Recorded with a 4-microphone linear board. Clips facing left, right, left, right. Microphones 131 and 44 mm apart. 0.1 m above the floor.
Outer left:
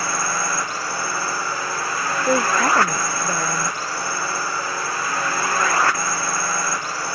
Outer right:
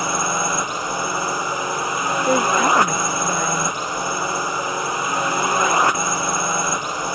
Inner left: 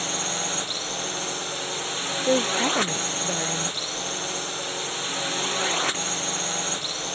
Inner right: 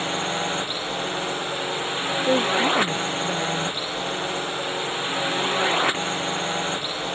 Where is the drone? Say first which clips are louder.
Outer right 3 dB, inner right 4 dB; 20° right (ahead or behind).